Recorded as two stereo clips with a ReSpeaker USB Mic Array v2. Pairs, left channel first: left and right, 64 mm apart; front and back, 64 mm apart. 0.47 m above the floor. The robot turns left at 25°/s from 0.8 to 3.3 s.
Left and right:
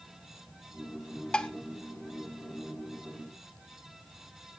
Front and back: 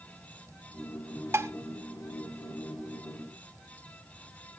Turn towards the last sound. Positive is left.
turn(degrees=110)